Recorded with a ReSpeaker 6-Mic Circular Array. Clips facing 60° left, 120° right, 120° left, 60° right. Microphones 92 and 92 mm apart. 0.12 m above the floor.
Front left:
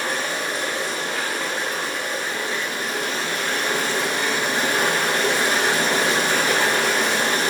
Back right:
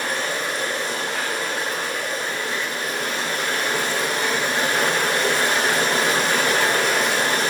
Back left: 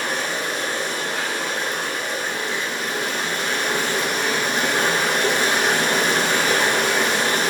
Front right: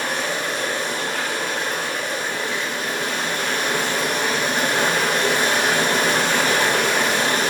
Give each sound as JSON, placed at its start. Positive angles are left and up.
{"t": 0.0, "sound": "running water", "azimuth_deg": -80, "distance_m": 1.8}